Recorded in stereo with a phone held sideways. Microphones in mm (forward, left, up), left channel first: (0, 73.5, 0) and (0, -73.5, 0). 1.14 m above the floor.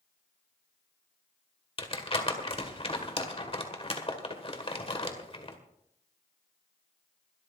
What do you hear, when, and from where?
1.8 s crumpling: 40° left (ahead or behind), 1.9 m